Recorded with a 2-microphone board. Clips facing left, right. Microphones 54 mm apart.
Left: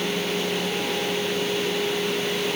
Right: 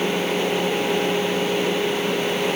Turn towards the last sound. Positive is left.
No sound to turn to.